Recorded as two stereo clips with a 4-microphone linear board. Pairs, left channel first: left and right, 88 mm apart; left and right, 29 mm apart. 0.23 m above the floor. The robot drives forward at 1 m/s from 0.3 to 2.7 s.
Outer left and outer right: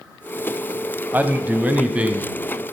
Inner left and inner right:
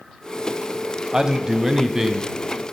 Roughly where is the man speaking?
Centre.